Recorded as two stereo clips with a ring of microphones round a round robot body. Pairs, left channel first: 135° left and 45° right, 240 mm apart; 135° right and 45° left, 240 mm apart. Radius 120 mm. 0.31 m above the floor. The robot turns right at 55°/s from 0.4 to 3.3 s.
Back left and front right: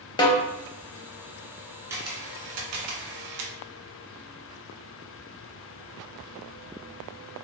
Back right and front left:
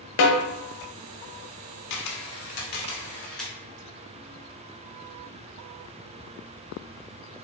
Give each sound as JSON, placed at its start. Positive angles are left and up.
{"t": 0.2, "sound": "a snare drum", "azimuth_deg": -155, "distance_m": 0.5}
{"t": 1.9, "sound": "a camera shutter", "azimuth_deg": -125, "distance_m": 0.6}